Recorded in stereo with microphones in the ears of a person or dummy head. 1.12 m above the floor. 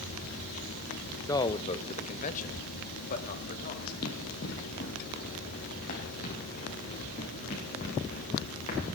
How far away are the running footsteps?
About 2.5 m.